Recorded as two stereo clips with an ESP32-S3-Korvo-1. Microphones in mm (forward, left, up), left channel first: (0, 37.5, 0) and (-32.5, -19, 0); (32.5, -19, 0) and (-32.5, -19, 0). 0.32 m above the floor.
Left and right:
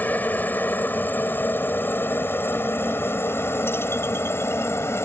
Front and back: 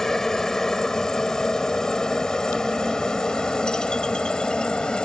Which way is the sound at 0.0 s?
75° left.